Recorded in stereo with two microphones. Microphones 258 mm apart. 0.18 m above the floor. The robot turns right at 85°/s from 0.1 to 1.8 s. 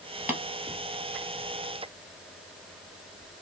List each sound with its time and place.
0.3 s tapping: 5° right (ahead or behind), 1.6 m; by 0.4 s 5° left (ahead or behind), 1.6 m